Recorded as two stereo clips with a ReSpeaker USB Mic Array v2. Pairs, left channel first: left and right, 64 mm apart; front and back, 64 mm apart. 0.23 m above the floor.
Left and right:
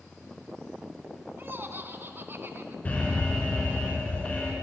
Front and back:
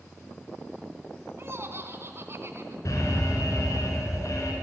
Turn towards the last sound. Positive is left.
turn(degrees=25)